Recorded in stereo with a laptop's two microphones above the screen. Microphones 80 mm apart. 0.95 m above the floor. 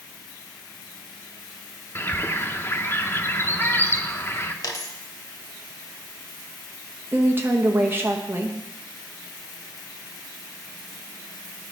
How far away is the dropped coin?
About 1.0 m.